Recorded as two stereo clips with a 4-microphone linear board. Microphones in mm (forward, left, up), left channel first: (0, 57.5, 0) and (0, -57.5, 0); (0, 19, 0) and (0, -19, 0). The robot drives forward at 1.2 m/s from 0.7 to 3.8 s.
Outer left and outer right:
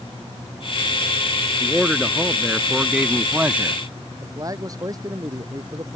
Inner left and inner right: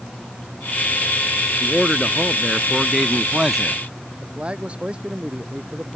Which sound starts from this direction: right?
A man speaking, at 4.2 s.